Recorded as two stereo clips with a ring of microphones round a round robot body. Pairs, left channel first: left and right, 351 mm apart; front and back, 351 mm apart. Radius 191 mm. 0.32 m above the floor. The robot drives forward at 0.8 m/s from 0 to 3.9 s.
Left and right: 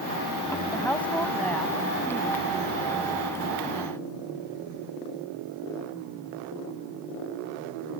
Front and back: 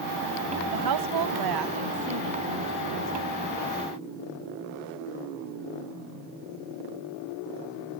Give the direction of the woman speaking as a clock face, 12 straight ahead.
6 o'clock.